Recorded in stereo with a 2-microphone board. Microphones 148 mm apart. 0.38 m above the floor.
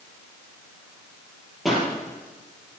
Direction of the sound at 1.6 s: Centre (ahead or behind).